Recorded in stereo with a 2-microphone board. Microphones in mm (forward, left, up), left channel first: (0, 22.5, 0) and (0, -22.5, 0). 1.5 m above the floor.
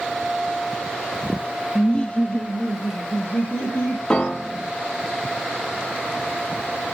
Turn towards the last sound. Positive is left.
turn(degrees=20)  # may be behind; listen again after turning